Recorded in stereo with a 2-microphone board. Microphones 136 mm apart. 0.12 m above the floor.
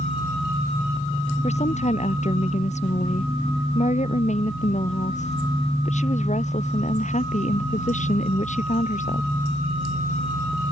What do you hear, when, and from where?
1.4 s a woman speaking: 55° left (ahead or behind); by 9.3 s 65° left (ahead or behind)